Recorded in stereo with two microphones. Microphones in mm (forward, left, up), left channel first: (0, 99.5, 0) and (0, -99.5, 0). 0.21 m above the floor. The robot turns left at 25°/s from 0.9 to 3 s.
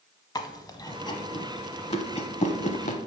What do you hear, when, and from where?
0.3 s chewing: 20° left (ahead or behind), 0.7 m; by 3.0 s 40° left (ahead or behind), 0.7 m